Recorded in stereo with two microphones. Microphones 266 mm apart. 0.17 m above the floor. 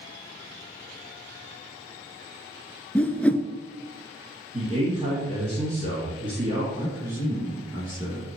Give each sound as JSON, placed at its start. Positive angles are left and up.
{"t": 3.0, "sound": "a whoosh", "side_deg": 5, "distance_m": 0.5}
{"t": 4.5, "sound": "a man speaking", "side_deg": -30, "distance_m": 2.5}
{"t": 6.8, "sound": "a man speaking", "side_deg": -15, "distance_m": 3.0}